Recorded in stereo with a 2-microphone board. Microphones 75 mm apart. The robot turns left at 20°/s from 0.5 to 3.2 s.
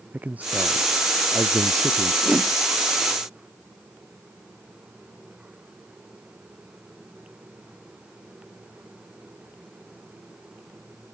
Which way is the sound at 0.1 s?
20° right.